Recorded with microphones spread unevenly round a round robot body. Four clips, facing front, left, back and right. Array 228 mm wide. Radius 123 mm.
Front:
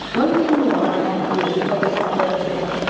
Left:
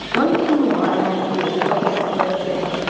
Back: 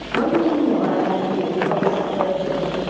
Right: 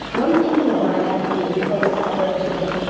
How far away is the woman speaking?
About 4 m.